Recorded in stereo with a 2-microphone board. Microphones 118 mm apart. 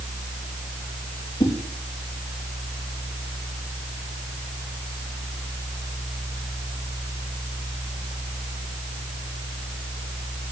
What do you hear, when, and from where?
1.4 s a whoosh: 30° left (ahead or behind), 3.5 m